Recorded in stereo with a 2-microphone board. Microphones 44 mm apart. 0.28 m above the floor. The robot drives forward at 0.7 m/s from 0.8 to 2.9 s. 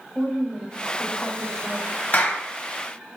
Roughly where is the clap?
Left.